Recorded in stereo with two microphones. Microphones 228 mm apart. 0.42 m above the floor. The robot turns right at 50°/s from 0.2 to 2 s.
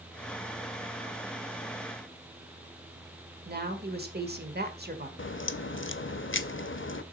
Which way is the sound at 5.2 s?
55° left (ahead or behind).